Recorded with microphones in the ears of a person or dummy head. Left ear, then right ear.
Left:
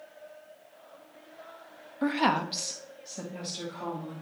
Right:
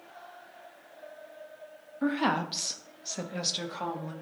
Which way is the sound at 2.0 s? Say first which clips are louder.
Left 2 dB; 25° left (ahead or behind).